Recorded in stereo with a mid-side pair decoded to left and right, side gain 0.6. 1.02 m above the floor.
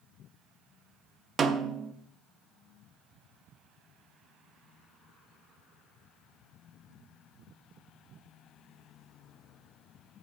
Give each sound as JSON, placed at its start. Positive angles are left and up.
{"t": 1.4, "sound": "a snare drum", "azimuth_deg": -35, "distance_m": 0.9}